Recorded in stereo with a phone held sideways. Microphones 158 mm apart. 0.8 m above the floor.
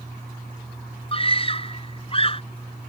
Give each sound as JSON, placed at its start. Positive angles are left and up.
{"t": 1.1, "sound": "a scream", "side_deg": 35}